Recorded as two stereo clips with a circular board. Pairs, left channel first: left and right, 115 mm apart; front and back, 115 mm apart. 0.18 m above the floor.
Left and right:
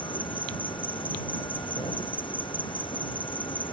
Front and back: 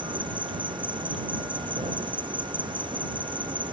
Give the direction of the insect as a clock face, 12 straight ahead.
8 o'clock.